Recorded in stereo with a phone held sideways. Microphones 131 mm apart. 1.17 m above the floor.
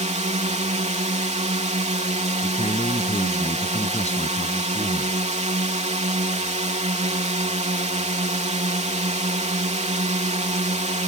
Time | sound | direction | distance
0.0 | a drone | 60° right (ahead or behind) | ?
2.4 | a man speaking | 55° left (ahead or behind) | ?